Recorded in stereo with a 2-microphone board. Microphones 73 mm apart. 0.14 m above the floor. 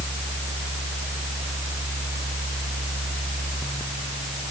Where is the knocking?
No knocking in this recording.